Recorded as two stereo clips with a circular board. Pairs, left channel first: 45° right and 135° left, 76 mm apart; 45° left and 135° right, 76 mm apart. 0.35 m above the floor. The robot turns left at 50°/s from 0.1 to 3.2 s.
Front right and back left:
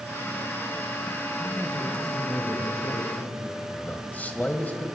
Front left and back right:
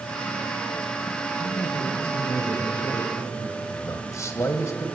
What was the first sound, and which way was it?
A man speaking, 60° left.